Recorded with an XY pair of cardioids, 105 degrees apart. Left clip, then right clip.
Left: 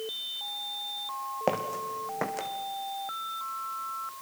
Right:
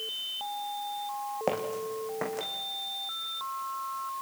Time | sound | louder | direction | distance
1.5 | footsteps | left 2 dB | 20° left | 3.5 m